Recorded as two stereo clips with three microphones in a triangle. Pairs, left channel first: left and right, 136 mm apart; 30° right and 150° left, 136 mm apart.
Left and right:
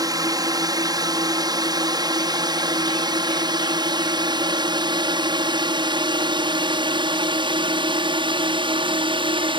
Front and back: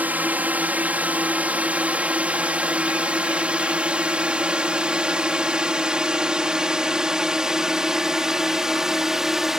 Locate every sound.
0.0 s a drone: 135° right; by 9.6 s 125° right